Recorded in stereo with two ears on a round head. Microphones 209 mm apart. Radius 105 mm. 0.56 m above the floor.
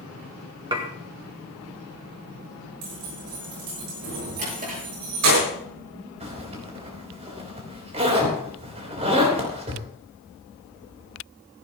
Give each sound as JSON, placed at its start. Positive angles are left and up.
{"t": 0.7, "sound": "dishes clattering", "side_deg": -20, "distance_m": 1.7}
{"t": 2.8, "sound": "keys jangling", "side_deg": -85, "distance_m": 7.5}
{"t": 4.4, "sound": "a drawer", "side_deg": -40, "distance_m": 7.0}
{"t": 6.2, "sound": "a zipper", "side_deg": -30, "distance_m": 3.5}